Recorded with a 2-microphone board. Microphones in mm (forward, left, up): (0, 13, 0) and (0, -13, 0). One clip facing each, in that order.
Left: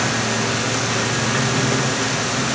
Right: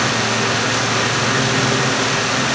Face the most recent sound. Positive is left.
No sound to turn to.